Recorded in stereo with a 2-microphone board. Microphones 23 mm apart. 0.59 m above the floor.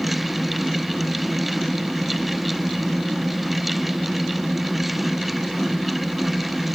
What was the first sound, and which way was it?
Only background noise.